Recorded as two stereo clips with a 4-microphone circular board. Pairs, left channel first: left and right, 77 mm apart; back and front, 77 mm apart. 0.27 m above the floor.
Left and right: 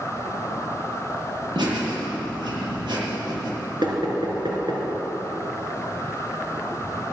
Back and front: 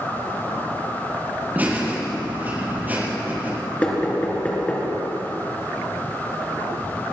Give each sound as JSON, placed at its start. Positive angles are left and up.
{"t": 1.6, "sound": "laughter", "azimuth_deg": -70, "distance_m": 7.0}
{"t": 3.8, "sound": "knocking", "azimuth_deg": -110, "distance_m": 3.5}